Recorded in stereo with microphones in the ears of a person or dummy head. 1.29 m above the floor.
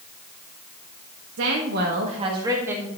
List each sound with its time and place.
1.4 s a woman speaking: 75° right (ahead or behind), 1.6 m; by 2.9 s 10° right (ahead or behind), 2.5 m